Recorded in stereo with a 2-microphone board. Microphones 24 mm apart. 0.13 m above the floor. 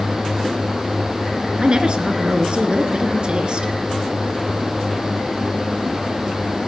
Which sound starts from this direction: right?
A woman speaking, at 1.6 s.